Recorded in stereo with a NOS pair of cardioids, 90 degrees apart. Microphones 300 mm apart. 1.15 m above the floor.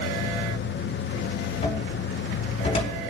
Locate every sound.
0.0 s a machine running: 40° left, 0.8 m
1.6 s a cupboard door: 20° left, 4.5 m